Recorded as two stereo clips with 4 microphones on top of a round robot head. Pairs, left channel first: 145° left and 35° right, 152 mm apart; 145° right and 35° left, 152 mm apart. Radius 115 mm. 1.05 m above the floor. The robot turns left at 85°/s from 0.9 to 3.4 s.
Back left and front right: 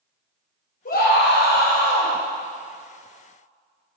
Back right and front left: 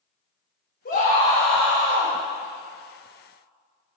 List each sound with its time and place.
0.8 s a scream: straight behind, 3.5 m; by 2.1 s 75° left, 3.5 m